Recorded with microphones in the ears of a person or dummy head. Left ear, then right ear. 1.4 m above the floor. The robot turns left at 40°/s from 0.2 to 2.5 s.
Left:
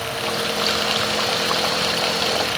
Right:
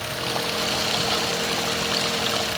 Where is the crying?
No crying in this recording.